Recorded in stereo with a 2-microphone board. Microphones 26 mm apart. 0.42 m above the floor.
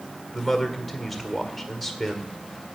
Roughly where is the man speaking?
Centre.